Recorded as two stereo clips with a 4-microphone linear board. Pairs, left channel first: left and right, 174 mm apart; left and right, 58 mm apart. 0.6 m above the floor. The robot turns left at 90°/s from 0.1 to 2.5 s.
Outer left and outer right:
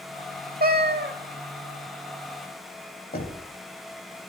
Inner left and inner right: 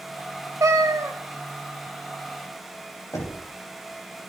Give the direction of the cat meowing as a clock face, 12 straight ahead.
2 o'clock.